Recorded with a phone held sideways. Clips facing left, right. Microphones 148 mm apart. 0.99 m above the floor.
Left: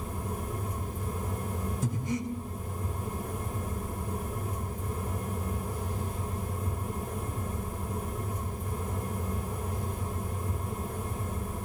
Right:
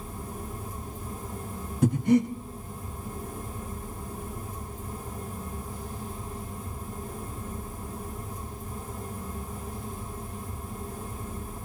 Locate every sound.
0.0 s a fan: 70° left (ahead or behind), 1.8 m
1.8 s breathing: 65° right (ahead or behind), 1.6 m